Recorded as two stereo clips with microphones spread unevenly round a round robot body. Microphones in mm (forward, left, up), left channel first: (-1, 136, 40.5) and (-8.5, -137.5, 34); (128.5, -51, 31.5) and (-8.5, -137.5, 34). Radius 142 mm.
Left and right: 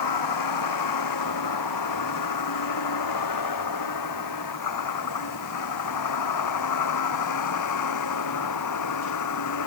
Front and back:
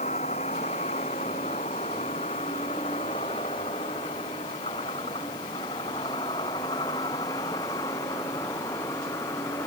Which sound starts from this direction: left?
A vehicle, at 0.0 s.